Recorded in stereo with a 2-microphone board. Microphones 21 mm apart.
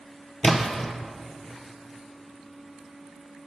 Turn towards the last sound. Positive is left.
turn(degrees=15)  # may be behind; listen again after turning